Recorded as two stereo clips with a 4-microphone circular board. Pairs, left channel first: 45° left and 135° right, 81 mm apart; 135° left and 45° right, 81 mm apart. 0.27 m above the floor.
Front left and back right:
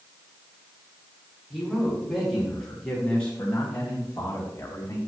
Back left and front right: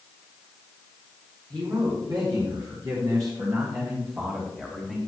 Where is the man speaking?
50° right, 3.5 m; by 5.0 s 35° left, 2.0 m.